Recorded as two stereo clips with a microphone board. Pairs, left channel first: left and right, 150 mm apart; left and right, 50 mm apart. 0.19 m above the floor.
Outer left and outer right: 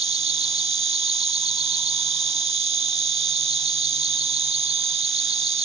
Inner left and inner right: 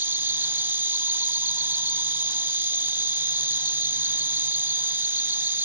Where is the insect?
45° right (ahead or behind).